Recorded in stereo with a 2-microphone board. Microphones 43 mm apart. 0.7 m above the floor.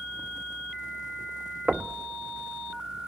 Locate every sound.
1.7 s knocking: 30° right (ahead or behind), 0.5 m